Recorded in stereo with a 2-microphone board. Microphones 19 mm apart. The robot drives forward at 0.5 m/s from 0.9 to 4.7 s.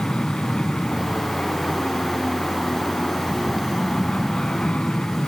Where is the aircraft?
65° left (ahead or behind); by 5.3 s 70° left (ahead or behind).